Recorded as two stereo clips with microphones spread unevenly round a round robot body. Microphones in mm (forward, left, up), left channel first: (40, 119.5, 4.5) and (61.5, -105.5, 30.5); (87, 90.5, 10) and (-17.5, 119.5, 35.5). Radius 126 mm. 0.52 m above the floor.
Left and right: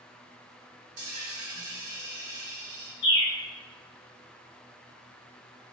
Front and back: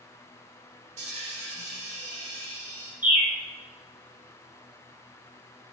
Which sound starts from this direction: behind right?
A dropped coin, at 1.0 s.